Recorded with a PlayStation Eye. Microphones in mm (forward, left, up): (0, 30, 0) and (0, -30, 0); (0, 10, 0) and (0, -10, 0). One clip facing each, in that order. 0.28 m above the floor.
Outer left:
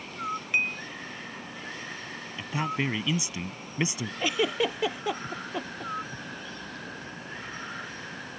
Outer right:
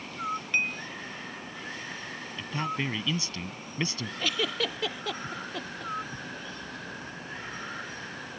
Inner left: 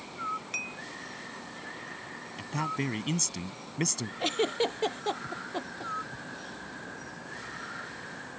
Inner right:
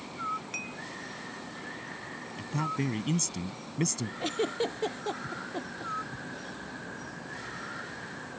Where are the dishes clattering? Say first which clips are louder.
Outer left 2 dB, inner left 2 dB; 15° left (ahead or behind).